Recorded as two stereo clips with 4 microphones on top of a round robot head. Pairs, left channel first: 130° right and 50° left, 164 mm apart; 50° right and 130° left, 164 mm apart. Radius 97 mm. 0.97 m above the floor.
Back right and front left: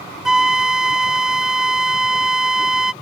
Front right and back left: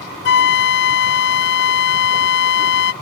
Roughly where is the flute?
Ahead right.